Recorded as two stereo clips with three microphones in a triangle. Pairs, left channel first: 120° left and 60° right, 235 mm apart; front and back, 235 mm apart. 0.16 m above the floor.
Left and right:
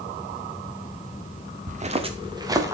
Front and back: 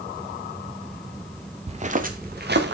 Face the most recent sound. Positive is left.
turn(degrees=-140)